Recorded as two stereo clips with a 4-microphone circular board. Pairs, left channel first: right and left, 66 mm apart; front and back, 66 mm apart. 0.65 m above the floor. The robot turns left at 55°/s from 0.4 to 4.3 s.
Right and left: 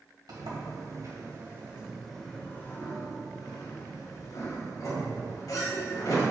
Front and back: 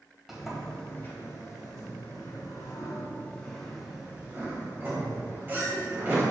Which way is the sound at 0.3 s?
95° left.